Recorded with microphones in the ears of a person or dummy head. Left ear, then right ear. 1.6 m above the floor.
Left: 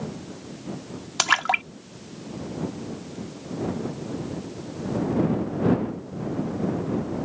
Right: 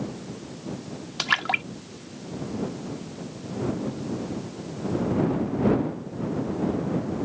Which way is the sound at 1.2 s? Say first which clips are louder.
Left 3 dB; 40° left (ahead or behind).